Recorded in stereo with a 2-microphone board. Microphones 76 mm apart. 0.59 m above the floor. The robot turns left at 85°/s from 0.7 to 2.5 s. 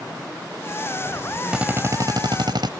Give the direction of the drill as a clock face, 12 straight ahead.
12 o'clock.